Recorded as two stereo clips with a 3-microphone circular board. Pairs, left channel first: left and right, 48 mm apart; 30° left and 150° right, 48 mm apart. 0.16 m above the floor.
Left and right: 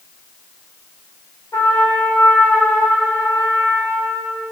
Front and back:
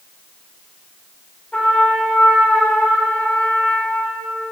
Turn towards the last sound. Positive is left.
turn(degrees=95)